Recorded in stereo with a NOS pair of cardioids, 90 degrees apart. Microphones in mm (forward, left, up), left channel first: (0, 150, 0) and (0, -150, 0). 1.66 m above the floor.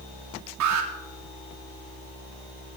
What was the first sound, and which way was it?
An alarm, 70° right.